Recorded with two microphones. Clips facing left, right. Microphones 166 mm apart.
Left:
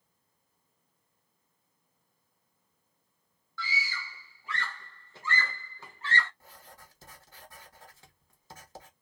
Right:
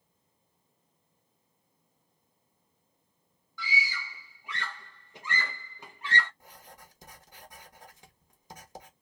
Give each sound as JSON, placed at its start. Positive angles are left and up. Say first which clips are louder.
{"t": 3.6, "sound": "a scream", "louder": "right 2 dB", "side_deg": -15, "distance_m": 0.6}
{"t": 6.4, "sound": "writing", "louder": "right 1 dB", "side_deg": -15, "distance_m": 1.0}